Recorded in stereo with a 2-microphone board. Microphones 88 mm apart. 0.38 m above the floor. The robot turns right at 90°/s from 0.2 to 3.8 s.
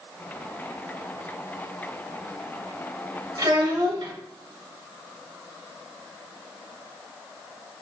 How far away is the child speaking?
About 0.7 m.